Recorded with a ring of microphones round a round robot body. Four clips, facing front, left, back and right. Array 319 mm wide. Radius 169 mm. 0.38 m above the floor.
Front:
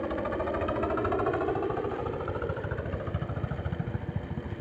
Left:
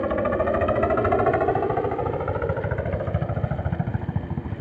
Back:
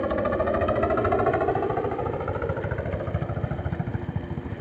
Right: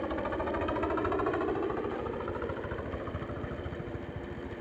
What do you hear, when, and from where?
0.0 s a helicopter: 120° left; by 4.6 s 100° left